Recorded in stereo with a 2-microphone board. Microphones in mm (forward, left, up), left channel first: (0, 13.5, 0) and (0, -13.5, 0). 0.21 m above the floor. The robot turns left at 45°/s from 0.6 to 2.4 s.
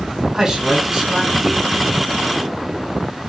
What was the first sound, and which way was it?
A man speaking, 35° right.